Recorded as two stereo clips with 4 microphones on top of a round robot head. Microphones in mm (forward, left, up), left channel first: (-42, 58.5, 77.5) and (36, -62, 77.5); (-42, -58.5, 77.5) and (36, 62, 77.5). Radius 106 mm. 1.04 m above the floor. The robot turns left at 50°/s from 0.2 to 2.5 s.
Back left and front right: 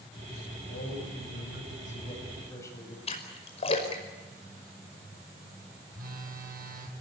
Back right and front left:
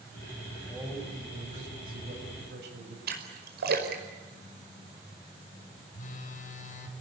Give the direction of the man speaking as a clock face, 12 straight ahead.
7 o'clock.